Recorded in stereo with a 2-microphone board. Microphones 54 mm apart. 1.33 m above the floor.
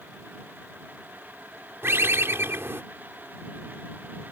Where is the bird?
50° right (ahead or behind).